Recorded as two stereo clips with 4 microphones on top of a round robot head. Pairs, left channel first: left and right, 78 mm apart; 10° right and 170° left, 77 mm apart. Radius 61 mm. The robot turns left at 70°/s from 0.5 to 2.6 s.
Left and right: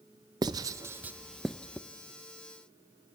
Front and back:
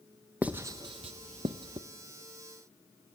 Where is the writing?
115° right, 0.6 m; by 1.8 s 150° left, 0.6 m.